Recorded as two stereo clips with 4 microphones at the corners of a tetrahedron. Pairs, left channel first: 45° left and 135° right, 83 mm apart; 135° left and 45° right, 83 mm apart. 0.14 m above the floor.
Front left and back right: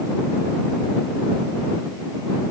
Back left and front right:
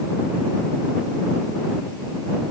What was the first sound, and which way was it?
Only background noise.